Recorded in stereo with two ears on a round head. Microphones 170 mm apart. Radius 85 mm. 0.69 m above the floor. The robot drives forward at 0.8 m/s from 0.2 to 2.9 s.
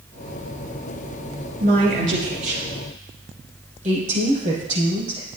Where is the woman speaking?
50° right (ahead or behind), 3.5 m; by 5.3 s 40° right (ahead or behind), 4.5 m.